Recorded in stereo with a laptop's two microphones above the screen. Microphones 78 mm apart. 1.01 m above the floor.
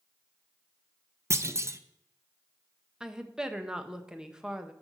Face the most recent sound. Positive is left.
turn(degrees=-10)  # may be behind; listen again after turning